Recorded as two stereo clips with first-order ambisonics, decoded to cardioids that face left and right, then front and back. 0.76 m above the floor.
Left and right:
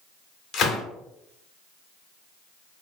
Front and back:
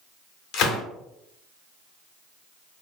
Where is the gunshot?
35° left, 0.6 m.